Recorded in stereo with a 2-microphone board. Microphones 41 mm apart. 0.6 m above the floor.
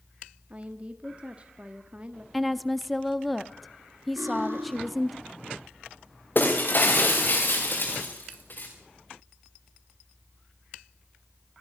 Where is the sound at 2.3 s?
Centre (ahead or behind), 0.8 m.